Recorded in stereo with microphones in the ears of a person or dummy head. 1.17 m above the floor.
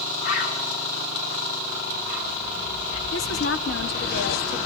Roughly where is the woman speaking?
Left.